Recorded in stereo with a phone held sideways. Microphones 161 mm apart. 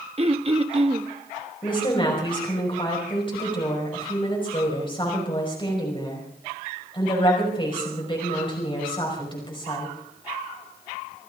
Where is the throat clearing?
40° right (ahead or behind), 1.1 m.